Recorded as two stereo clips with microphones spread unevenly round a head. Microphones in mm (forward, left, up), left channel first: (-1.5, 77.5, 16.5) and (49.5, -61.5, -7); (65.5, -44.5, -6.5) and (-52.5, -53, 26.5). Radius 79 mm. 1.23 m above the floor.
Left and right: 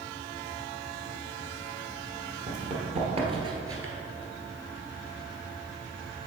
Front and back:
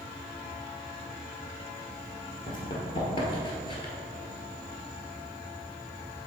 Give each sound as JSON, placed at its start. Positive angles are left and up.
{"t": 2.5, "sound": "running footsteps", "azimuth_deg": -50, "distance_m": 1.7}